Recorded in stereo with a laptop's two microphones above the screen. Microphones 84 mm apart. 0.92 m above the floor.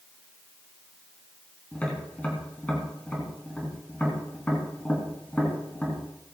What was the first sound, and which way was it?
Tapping, 15° left (ahead or behind).